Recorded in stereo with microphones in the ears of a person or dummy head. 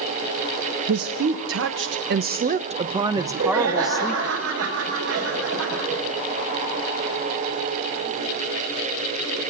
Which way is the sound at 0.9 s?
75° right (ahead or behind).